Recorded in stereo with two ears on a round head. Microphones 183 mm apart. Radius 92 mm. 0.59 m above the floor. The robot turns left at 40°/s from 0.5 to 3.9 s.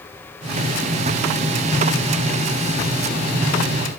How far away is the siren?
I don't hear a siren.